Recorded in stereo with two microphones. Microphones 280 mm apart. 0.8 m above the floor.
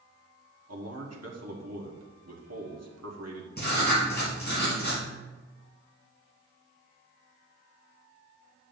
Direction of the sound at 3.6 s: 35° left (ahead or behind).